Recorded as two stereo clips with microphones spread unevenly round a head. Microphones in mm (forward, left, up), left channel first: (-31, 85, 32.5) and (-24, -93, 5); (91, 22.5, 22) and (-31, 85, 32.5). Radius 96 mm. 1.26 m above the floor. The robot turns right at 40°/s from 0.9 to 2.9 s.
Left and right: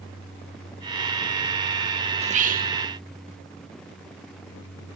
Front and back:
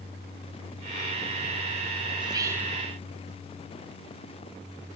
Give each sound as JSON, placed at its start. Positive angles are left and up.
{"t": 2.2, "sound": "whispering", "azimuth_deg": -145}